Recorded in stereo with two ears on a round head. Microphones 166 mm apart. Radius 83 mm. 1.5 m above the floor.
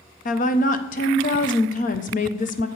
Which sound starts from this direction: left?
A woman speaking, at 0.2 s.